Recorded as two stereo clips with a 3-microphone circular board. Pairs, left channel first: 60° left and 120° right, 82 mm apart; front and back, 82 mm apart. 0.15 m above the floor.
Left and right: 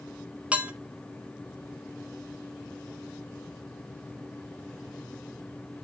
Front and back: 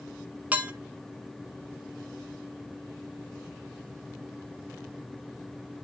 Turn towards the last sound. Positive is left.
turn(degrees=-160)